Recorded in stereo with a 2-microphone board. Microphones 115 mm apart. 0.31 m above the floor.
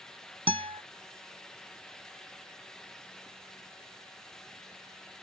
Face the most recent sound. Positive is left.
turn(degrees=-55)  # may be behind; listen again after turning